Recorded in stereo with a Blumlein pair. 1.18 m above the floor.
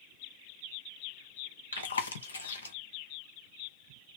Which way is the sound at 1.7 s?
70° left.